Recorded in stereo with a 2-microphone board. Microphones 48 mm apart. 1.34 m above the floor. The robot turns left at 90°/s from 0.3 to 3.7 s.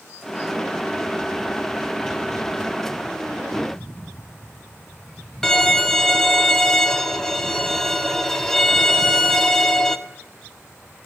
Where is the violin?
10° left (ahead or behind), 1.5 m.